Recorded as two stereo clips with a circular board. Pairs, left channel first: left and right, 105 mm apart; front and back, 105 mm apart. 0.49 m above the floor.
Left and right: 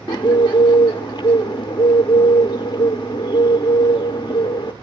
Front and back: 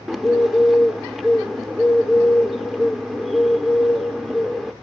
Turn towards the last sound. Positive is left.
turn(degrees=90)